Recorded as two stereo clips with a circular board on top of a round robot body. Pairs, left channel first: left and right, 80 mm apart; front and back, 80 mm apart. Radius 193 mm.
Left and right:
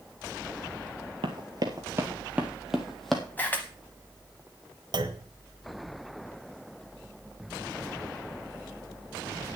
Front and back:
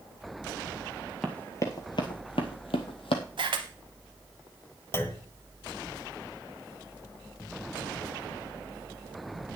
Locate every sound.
1.2 s running footsteps: 80° right, 0.7 m; by 3.2 s 5° left, 1.2 m
3.4 s a camera shutter: 160° left, 0.5 m
4.9 s a clunk: 60° right, 1.3 m